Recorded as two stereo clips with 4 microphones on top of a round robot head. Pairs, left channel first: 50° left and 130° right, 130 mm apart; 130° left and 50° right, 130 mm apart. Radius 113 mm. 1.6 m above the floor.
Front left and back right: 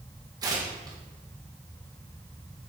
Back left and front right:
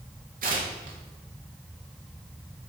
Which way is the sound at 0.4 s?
65° right.